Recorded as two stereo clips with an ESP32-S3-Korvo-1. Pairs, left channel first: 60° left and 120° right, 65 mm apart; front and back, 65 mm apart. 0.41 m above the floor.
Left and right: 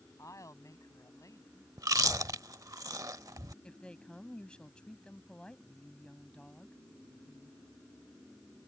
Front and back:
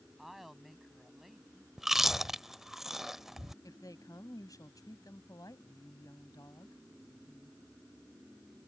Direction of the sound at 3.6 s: 15° right.